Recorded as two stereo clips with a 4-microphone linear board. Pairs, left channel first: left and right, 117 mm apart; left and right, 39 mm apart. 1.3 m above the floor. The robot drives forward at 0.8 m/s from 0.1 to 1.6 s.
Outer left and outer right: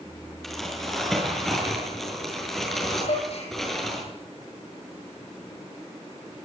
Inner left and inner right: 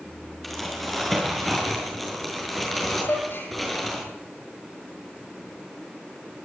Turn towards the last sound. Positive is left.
turn(degrees=70)  # may be behind; listen again after turning